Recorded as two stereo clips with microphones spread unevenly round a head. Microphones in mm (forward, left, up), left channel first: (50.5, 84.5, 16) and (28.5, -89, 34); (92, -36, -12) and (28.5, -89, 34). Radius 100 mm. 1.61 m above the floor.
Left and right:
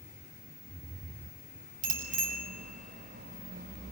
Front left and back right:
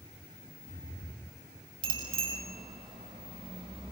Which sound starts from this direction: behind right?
A bicycle bell, at 1.8 s.